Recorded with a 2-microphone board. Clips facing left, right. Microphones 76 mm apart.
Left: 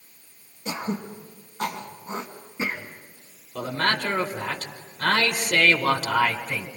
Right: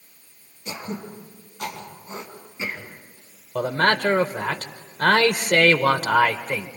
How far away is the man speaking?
About 1.8 m.